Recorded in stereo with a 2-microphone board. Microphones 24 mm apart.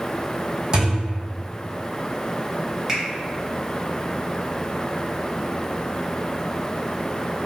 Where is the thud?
35° right (ahead or behind), 1.6 m.